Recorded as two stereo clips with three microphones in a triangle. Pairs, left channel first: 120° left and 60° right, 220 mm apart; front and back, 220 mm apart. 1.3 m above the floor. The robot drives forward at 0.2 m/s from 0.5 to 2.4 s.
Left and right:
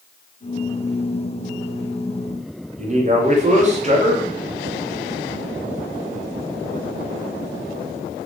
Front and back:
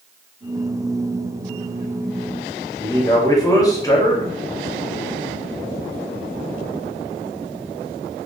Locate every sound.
2.8 s a man speaking: 60° right, 0.5 m